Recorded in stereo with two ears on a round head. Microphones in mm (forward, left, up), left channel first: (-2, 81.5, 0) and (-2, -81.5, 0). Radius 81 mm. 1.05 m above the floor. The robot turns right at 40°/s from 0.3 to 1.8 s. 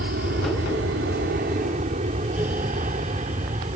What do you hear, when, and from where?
0.0 s an aircraft: 60° right (ahead or behind); by 3.8 s 35° right (ahead or behind)